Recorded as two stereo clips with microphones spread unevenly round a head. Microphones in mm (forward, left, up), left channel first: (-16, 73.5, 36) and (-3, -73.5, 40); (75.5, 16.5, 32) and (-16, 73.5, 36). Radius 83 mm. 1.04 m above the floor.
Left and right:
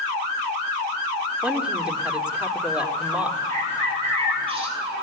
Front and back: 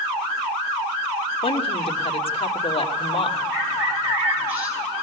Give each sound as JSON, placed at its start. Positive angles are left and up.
{"t": 1.4, "sound": "a woman speaking", "azimuth_deg": 0, "distance_m": 2.5}
{"t": 3.5, "sound": "a bird", "azimuth_deg": -140, "distance_m": 6.5}